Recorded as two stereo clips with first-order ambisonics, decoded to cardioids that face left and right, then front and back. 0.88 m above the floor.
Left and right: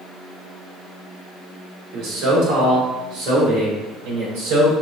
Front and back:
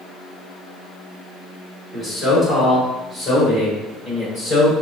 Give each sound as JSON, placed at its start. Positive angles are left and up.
{"t": 1.9, "sound": "a man speaking", "azimuth_deg": -90, "distance_m": 1.9}